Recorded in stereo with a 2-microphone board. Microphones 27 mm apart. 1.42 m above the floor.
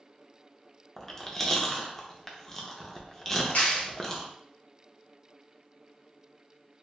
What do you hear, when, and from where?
1.0 s chewing: 15° left (ahead or behind), 0.6 m
3.5 s a clap: 85° left, 1.1 m